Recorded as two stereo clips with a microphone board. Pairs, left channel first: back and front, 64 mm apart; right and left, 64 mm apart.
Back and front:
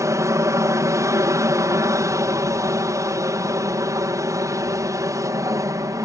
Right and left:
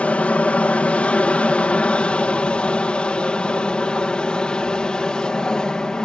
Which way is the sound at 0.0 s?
20° right.